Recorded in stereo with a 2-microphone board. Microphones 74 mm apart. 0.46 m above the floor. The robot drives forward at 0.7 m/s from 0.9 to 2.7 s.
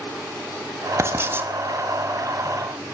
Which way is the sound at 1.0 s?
35° right (ahead or behind).